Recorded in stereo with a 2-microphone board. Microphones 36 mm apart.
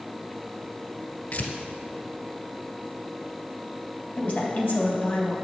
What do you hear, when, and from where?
1.3 s tearing paper: 60° left (ahead or behind), 1.7 m
4.2 s a woman speaking: 45° left (ahead or behind), 3 m